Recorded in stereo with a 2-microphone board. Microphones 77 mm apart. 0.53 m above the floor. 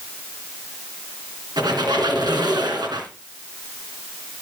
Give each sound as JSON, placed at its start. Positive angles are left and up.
{"t": 1.6, "sound": "a squeak", "side_deg": -65, "distance_m": 2.5}